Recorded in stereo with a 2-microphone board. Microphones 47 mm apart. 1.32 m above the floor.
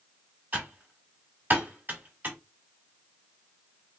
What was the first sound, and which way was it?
Typing on a keyboard, 40° right (ahead or behind).